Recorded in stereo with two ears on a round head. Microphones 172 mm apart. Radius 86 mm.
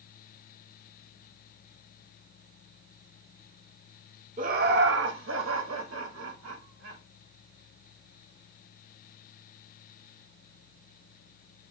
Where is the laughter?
40° right (ahead or behind), 0.9 m; by 7.0 s 85° right, 3 m.